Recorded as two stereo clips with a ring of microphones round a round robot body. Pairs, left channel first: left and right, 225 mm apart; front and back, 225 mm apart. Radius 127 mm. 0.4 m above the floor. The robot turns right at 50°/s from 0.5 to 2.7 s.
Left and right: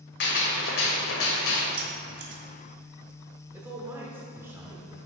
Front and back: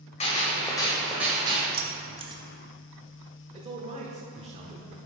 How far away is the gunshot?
About 1.9 m.